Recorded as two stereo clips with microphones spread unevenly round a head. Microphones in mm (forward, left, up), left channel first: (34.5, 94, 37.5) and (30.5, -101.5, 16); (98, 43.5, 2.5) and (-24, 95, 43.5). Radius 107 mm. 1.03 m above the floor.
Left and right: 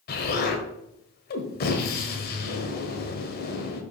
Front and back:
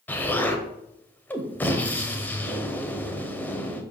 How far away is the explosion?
About 1.3 m.